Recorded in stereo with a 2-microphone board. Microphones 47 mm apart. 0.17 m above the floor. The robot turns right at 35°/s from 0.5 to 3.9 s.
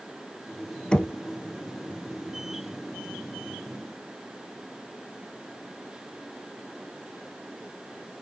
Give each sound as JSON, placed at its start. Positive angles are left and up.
{"t": 0.9, "sound": "knocking", "side_deg": 20, "distance_m": 0.7}